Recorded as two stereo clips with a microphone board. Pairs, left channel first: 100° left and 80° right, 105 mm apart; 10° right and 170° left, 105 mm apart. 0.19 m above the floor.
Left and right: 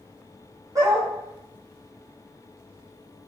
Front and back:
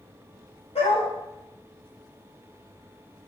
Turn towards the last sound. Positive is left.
turn(degrees=-20)